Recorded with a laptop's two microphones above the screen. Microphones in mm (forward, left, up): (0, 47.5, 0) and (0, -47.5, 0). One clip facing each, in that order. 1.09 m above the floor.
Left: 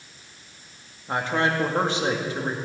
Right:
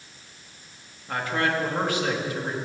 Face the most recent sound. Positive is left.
turn(degrees=25)  # may be behind; listen again after turning